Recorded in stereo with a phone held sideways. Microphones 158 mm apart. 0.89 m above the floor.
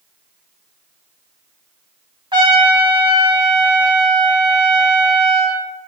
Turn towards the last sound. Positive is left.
turn(degrees=-30)  # may be behind; listen again after turning